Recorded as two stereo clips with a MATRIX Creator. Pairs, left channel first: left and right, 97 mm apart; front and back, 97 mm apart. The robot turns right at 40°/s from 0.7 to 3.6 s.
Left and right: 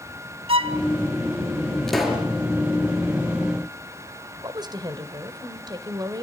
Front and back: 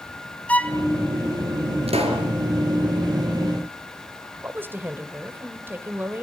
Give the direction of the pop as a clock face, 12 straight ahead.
6 o'clock.